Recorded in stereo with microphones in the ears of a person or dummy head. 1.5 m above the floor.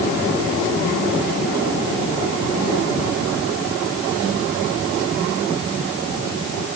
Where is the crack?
No crack in this recording.